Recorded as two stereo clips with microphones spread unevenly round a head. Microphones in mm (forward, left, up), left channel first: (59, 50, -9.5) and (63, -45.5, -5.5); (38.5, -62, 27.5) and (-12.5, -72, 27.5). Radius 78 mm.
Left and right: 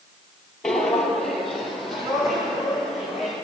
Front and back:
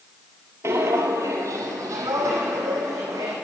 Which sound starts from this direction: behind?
Footsteps, at 0.6 s.